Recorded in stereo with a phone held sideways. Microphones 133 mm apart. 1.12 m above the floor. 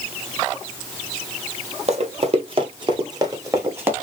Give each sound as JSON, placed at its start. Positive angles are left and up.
{"t": 1.9, "sound": "running footsteps", "side_deg": -50, "distance_m": 2.0}